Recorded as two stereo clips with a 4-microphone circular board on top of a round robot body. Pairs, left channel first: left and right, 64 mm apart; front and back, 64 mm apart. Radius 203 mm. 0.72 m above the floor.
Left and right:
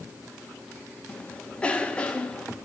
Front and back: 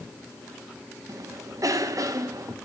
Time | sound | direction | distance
1.1 | a cough | 165° left | 2 m